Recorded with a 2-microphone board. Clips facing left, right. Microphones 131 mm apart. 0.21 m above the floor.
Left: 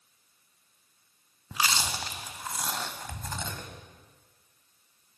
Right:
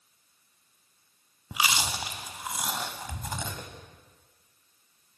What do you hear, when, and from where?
1.5 s chewing: 10° right (ahead or behind), 0.5 m